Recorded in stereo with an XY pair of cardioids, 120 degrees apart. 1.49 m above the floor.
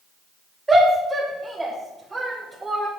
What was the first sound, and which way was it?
A shout, 20° right.